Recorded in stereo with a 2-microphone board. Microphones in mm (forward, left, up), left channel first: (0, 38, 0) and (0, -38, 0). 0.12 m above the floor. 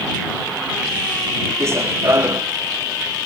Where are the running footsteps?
35° right (ahead or behind).